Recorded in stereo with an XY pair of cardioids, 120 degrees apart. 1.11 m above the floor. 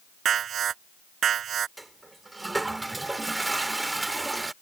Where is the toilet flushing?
15° right.